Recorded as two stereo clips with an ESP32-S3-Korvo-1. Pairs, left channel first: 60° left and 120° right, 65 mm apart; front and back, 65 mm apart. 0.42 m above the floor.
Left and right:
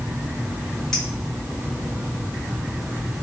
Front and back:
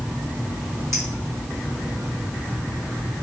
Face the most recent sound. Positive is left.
turn(degrees=140)